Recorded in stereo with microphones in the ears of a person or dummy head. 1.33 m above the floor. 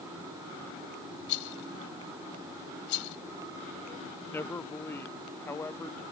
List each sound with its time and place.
1.3 s a rattle: 70° left (ahead or behind)
4.3 s a man speaking: 10° left (ahead or behind)